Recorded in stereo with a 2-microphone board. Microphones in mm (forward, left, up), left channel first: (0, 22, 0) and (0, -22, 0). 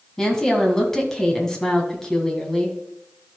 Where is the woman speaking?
10° left (ahead or behind), 2 m.